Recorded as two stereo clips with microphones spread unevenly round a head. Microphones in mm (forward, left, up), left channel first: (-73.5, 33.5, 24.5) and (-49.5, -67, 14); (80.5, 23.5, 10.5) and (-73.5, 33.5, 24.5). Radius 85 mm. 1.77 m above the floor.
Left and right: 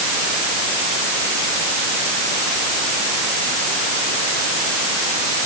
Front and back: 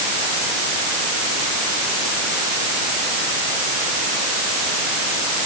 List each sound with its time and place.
Only background noise.